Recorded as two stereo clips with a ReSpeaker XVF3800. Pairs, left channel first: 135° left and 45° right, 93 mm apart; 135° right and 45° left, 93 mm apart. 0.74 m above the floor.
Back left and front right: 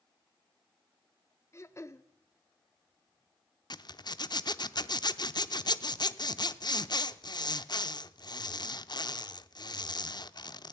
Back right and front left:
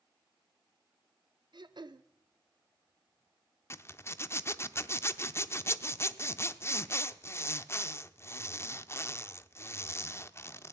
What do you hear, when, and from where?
1.5 s throat clearing: 75° left, 0.6 m
3.7 s a zipper: 165° left, 0.5 m